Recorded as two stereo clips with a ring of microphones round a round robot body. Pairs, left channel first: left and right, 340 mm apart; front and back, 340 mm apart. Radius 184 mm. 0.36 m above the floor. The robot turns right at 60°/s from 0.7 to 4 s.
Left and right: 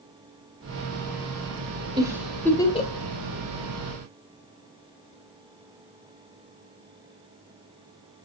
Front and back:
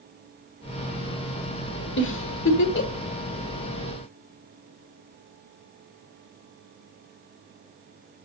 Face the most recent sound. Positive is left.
turn(degrees=100)